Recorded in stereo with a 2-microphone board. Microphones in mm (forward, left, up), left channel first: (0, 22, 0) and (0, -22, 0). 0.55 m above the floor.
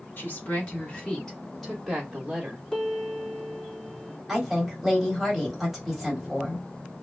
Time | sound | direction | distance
0.2 | a woman speaking | 45° left (ahead or behind) | 1.1 m
2.7 | a piano | 15° left (ahead or behind) | 1.3 m
4.3 | a woman speaking | 5° right (ahead or behind) | 1.3 m